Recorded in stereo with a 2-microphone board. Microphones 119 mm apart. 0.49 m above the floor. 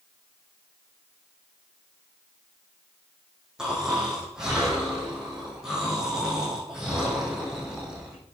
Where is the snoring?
5° right (ahead or behind), 5 m.